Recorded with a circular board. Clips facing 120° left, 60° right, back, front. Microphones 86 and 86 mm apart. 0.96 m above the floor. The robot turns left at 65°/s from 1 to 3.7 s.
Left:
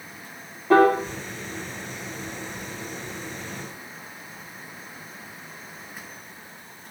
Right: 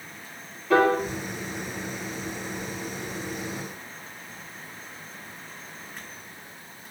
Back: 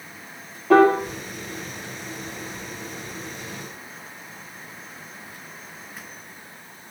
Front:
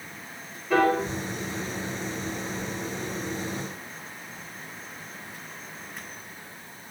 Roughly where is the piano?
Behind.